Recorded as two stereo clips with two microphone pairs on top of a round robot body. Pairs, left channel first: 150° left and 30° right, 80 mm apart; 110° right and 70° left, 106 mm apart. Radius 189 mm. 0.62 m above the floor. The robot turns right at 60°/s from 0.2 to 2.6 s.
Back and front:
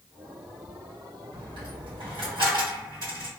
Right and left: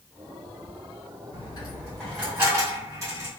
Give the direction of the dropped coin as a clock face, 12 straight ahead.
2 o'clock.